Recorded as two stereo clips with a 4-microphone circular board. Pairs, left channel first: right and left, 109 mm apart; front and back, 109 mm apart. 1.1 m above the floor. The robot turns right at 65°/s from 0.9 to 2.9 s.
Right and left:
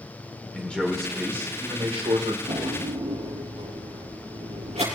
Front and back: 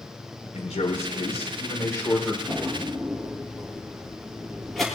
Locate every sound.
0.5 s a man speaking: 10° right, 3.5 m; by 2.4 s 85° left, 3.5 m
2.5 s a drawer: 60° left, 6.5 m; by 4.8 s 90° left, 6.5 m